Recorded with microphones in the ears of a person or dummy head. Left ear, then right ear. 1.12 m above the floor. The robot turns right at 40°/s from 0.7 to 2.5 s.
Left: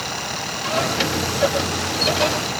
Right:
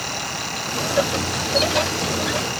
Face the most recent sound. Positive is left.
No sound to turn to.